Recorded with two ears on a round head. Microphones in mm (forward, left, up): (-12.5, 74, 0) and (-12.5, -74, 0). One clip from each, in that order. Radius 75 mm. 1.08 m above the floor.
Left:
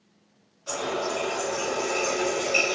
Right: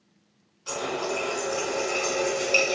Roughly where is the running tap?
Right.